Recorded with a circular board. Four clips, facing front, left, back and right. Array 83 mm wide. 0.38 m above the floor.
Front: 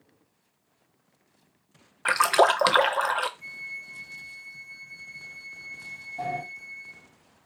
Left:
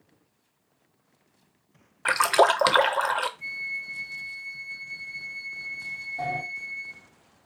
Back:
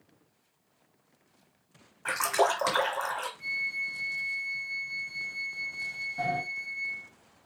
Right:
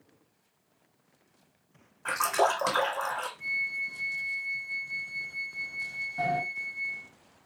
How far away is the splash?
About 0.5 m.